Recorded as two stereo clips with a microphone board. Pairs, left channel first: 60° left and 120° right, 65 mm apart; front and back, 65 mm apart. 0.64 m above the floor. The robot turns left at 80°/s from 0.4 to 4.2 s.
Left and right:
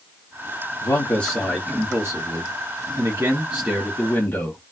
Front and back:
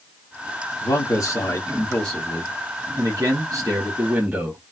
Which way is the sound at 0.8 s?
30° left.